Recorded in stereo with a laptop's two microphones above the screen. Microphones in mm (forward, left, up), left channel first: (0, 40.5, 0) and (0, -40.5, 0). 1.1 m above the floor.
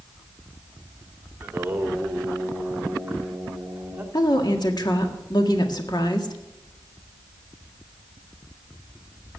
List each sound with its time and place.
1.4 s singing: 20° right (ahead or behind), 1.9 m
4.1 s a woman speaking: 60° left (ahead or behind), 1.6 m